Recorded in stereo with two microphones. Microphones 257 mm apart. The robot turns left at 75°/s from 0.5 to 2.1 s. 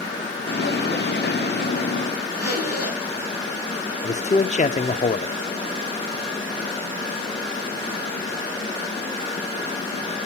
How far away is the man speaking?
About 0.7 m.